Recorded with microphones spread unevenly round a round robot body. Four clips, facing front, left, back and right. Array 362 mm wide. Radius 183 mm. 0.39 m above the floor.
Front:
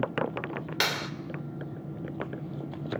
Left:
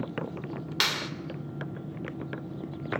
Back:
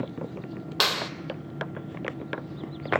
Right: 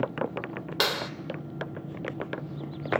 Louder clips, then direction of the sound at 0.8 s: Right 4 dB, back 4 dB; 115° right.